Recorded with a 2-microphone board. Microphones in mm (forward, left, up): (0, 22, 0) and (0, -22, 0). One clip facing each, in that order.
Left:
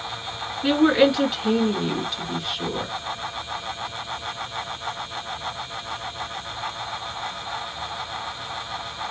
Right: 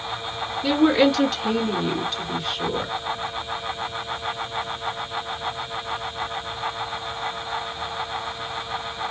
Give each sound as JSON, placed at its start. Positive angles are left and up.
{"t": 0.6, "sound": "a woman speaking", "side_deg": 30, "distance_m": 2.5}